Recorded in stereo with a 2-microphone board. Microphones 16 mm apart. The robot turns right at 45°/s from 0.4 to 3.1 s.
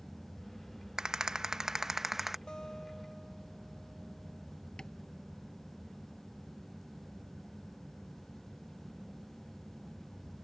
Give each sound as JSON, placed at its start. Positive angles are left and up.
{"t": 1.0, "sound": "a rattle", "azimuth_deg": -85}
{"t": 2.5, "sound": "a guitar", "side_deg": 50}
{"t": 4.8, "sound": "tapping", "side_deg": 55}